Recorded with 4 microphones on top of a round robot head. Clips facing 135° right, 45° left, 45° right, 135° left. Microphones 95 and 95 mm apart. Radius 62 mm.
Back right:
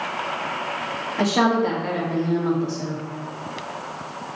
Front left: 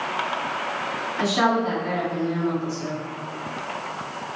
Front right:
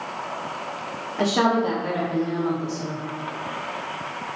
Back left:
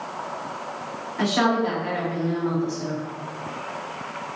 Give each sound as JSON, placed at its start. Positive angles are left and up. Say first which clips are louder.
{"t": 1.2, "sound": "a woman speaking", "louder": "back right 2 dB, front right 1 dB", "azimuth_deg": -100, "distance_m": 2.5}